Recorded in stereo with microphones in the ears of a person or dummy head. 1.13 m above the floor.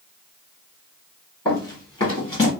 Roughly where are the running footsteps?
Centre.